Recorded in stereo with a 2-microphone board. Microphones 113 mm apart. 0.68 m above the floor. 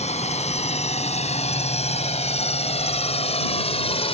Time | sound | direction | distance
0.0 | a drone | 80° left | ?